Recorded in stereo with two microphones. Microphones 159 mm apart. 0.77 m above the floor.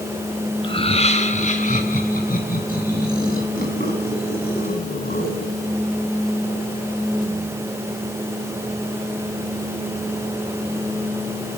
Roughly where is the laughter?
Left.